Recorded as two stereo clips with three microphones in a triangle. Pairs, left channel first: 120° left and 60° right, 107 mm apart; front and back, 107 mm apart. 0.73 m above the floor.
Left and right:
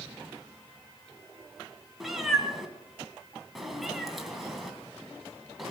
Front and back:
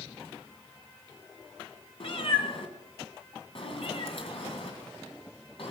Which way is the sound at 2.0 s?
30° left.